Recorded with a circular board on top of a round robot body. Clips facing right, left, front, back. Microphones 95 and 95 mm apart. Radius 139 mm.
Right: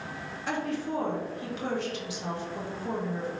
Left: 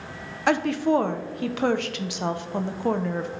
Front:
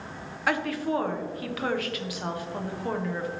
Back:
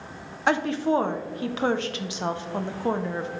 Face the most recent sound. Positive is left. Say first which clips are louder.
# left 10 dB, back 4 dB
turn(degrees=115)